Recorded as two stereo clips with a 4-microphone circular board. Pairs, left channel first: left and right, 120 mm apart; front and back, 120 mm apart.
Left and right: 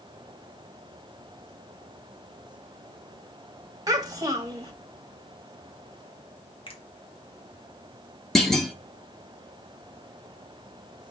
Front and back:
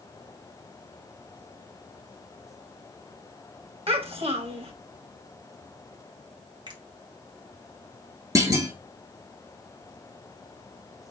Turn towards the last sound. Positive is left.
turn(degrees=175)